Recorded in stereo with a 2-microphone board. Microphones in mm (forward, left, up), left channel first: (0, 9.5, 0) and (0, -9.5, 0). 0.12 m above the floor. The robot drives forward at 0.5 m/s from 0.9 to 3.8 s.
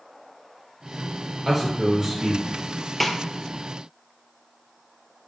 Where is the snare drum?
10° left (ahead or behind), 0.8 m; by 3.2 s 15° left (ahead or behind), 0.7 m.